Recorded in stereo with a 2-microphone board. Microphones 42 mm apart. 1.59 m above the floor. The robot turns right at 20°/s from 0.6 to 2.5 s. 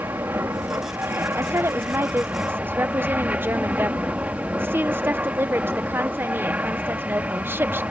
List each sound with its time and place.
0.0 s an aircraft: 80° right; by 7.9 s 40° right
1.4 s a woman speaking: 85° right; by 7.8 s 60° right (ahead or behind)